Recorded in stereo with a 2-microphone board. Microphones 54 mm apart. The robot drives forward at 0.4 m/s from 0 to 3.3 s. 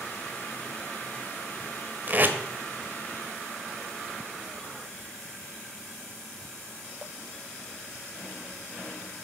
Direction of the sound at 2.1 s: 35° right (ahead or behind).